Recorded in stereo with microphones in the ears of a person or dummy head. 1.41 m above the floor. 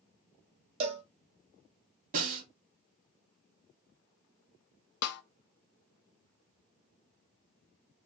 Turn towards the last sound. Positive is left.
turn(degrees=65)  # may be behind; listen again after turning